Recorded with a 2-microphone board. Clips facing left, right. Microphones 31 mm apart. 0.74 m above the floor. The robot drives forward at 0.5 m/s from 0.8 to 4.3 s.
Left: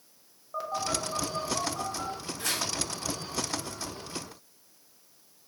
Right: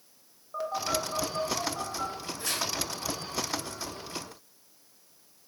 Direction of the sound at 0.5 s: Centre (ahead or behind).